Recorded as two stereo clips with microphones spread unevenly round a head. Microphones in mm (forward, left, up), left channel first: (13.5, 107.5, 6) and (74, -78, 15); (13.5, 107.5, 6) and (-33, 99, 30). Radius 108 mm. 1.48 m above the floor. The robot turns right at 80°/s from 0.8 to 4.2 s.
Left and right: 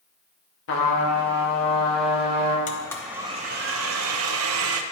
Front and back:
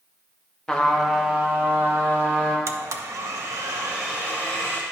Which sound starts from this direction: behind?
A blender, at 2.7 s.